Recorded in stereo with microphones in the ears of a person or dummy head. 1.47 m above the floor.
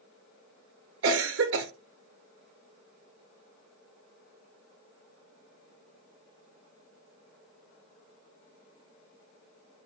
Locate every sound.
1.0 s a cough: 60° right (ahead or behind), 0.5 m